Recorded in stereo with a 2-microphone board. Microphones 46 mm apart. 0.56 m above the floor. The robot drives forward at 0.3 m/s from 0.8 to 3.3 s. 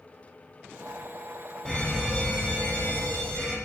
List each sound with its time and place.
1.6 s a fire alarm: 20° left (ahead or behind), 3 m